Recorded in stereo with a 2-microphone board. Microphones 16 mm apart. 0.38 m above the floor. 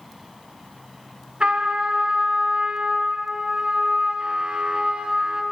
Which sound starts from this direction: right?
A trumpet, at 1.4 s.